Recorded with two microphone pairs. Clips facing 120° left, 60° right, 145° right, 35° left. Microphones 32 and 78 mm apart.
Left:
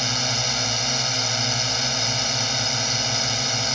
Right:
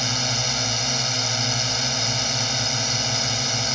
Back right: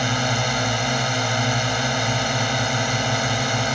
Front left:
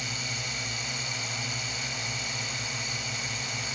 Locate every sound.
0.0 s a drone: 155° right